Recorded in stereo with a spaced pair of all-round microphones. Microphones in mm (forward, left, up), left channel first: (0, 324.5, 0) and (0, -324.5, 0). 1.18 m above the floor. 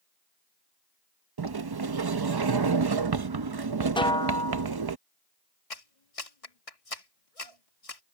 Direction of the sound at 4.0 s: 10° left (ahead or behind).